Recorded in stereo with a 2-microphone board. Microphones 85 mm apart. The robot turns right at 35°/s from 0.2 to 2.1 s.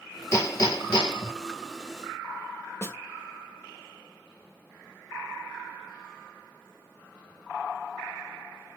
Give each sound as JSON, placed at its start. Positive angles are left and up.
{"t": 0.3, "sound": "hammering", "azimuth_deg": 35, "distance_m": 1.8}
{"t": 2.8, "sound": "a snare drum", "side_deg": 30, "distance_m": 0.6}